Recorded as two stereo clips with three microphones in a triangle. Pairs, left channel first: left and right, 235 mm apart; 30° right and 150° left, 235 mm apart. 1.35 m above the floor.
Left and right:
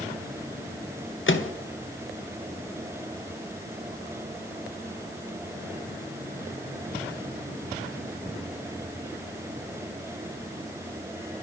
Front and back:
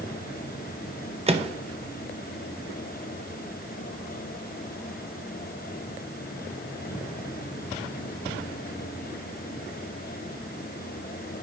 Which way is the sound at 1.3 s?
95° left.